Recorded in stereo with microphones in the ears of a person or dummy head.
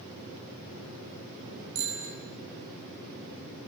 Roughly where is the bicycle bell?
Right.